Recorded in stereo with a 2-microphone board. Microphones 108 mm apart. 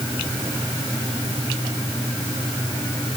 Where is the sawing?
No sawing in this recording.